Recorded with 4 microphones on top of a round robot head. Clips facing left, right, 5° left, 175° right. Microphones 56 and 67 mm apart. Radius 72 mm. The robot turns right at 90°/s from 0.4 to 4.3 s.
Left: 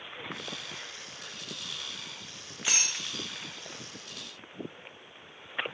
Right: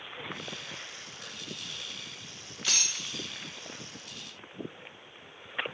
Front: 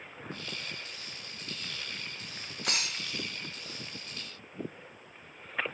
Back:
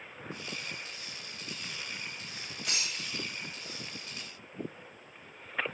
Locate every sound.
2.6 s breaking glass: 20° left, 1.3 m; by 3.3 s 80° left, 1.3 m